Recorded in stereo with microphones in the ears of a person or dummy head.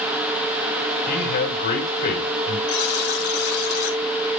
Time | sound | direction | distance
1.1 | a man speaking | 55° left (ahead or behind) | 5.5 m
2.7 | a buzzer | 60° left (ahead or behind) | 4.5 m